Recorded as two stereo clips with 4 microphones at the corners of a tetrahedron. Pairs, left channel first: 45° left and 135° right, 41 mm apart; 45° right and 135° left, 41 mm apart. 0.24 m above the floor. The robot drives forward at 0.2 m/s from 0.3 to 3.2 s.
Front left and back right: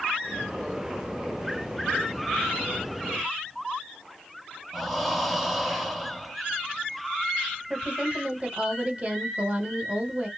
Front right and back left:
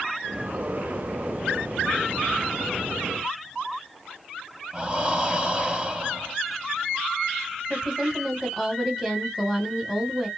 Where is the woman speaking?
155° right, 1.1 m.